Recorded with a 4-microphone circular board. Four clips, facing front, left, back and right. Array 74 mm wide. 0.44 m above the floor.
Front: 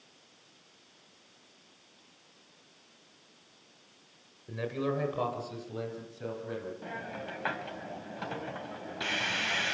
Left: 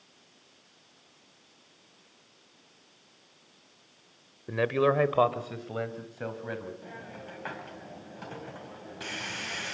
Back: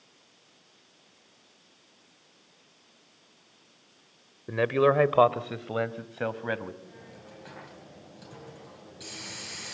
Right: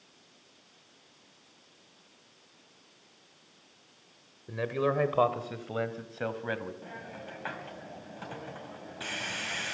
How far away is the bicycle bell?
No bicycle bell in this recording.